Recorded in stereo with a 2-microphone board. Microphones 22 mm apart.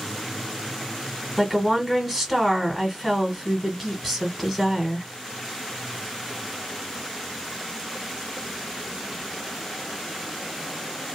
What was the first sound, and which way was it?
A woman speaking, 5° right (ahead or behind).